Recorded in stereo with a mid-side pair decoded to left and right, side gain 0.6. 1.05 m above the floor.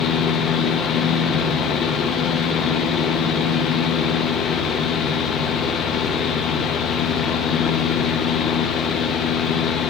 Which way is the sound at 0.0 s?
55° left.